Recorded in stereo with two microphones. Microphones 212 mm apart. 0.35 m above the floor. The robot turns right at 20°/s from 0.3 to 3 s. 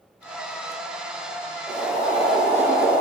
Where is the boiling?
5° right (ahead or behind), 1.4 m; by 3.0 s 5° left (ahead or behind), 1.4 m.